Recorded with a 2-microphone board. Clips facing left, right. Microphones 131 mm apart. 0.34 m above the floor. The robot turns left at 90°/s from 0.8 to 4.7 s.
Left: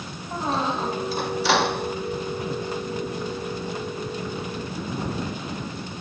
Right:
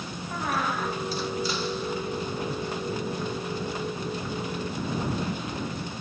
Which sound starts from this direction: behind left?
A squeak, at 0.3 s.